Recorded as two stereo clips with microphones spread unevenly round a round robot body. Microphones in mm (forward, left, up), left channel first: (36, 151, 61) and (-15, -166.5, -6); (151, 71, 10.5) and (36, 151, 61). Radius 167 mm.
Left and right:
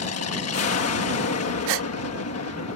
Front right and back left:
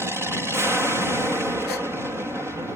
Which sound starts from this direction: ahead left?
An aircraft, at 0.0 s.